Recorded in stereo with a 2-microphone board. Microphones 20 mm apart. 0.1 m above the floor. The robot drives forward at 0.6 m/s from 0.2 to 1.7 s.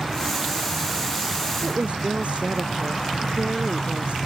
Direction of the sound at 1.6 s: 75° right (ahead or behind).